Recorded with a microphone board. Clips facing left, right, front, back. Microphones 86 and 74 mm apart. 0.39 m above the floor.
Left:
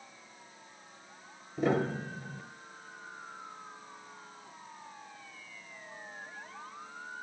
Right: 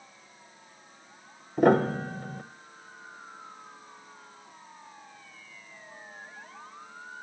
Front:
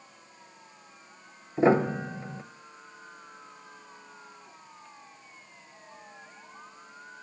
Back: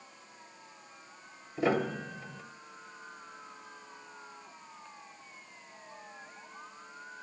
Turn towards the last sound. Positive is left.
turn(degrees=-60)